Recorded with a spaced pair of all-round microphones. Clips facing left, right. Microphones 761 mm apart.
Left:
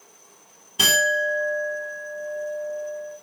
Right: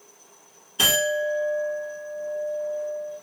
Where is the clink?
50° left (ahead or behind), 2 m.